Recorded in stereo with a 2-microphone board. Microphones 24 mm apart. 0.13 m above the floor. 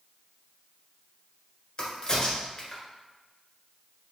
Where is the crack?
30° left (ahead or behind), 1.5 m.